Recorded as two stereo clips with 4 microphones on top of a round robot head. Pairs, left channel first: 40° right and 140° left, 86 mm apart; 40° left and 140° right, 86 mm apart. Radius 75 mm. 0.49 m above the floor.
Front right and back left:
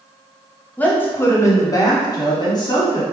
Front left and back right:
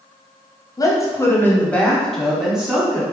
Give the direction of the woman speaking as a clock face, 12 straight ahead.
11 o'clock.